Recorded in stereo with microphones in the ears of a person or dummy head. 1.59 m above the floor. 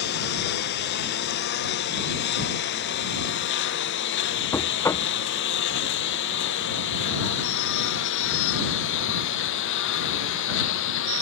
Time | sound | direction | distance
0.0 | a lawn mower | 60° left (ahead or behind) | ?
4.5 | knocking | 10° left (ahead or behind) | ?